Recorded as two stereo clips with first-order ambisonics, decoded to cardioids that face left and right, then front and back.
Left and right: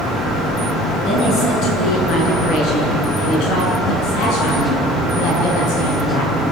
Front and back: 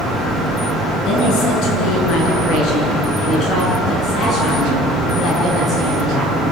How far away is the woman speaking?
About 7.5 m.